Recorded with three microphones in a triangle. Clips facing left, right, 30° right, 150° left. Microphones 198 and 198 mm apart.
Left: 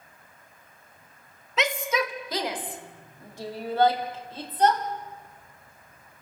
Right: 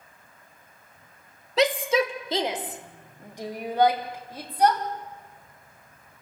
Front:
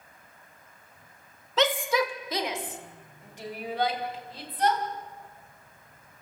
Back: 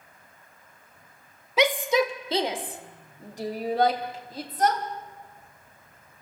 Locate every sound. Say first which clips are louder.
1.6 s a shout: right 5 dB, back 3 dB; 135° right, 1.1 m; by 4.8 s 170° right, 2.5 m